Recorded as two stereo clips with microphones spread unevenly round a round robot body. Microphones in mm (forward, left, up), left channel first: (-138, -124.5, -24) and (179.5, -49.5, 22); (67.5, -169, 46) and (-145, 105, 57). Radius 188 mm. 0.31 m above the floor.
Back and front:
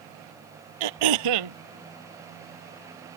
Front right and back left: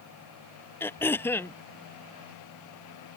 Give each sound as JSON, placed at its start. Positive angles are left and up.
{"t": 0.8, "sound": "throat clearing", "azimuth_deg": 30}